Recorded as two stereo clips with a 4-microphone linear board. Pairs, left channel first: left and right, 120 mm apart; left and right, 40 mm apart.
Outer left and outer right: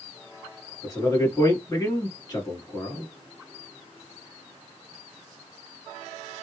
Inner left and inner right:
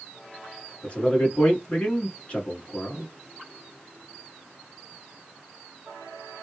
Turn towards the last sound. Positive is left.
turn(degrees=30)  # may be behind; listen again after turning